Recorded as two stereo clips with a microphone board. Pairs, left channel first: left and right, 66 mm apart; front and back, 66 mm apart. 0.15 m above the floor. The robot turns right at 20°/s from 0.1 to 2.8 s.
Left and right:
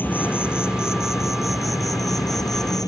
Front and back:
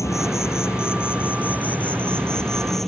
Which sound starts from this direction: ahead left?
An insect, at 0.0 s.